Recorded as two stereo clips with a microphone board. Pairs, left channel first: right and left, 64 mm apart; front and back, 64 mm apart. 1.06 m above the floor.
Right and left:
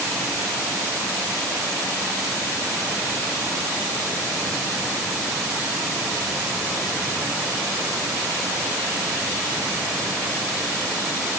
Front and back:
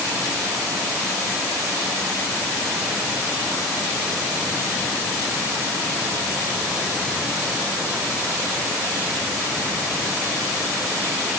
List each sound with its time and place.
Only background noise.